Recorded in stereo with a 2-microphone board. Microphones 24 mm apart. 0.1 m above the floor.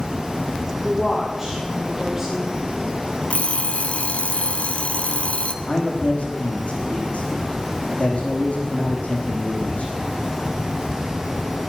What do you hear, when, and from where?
0.8 s a woman speaking: 15° right (ahead or behind), 9.5 m
3.3 s an alarm clock: 65° left (ahead or behind), 1.3 m
5.6 s a man speaking: 65° left (ahead or behind), 5.5 m